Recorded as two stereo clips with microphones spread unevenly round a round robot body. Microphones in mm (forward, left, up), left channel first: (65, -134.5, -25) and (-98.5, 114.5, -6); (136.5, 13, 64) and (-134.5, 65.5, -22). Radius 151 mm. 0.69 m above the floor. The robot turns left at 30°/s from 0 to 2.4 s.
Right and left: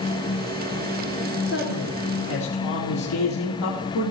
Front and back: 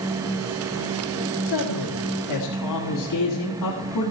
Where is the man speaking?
10° right, 1.7 m; by 4.1 s 35° right, 1.7 m.